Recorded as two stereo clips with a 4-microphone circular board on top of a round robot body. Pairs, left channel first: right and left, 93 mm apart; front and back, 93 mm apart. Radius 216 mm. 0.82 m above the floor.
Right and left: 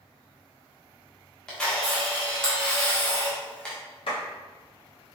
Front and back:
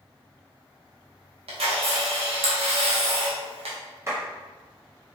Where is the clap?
120° right, 1.9 m.